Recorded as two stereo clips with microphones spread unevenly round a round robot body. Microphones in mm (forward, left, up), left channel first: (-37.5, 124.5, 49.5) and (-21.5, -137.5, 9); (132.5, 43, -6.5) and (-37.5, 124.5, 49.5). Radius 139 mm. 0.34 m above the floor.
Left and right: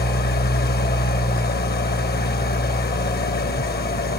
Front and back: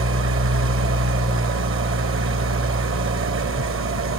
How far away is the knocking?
No knocking in this recording.